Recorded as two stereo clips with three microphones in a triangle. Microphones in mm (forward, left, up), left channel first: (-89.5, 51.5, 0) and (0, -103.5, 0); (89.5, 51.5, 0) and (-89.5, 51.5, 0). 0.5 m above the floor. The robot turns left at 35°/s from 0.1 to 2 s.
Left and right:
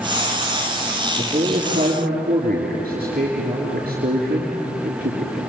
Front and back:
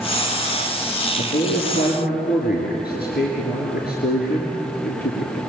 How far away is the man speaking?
About 6 m.